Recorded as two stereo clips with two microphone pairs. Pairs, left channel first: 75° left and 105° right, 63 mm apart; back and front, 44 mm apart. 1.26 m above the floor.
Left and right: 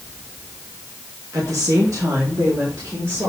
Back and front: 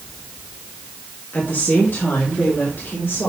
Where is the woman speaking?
135° right, 1.6 m; by 3.3 s 150° right, 3 m.